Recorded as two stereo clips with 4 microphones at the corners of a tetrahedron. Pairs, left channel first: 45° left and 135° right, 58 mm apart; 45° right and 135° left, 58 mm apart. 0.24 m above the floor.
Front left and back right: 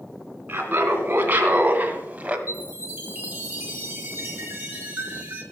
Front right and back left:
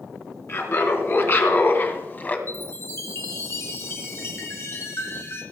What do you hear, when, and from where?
0.5 s laughter: 85° right, 3 m
2.5 s a chime: 80° right, 2.5 m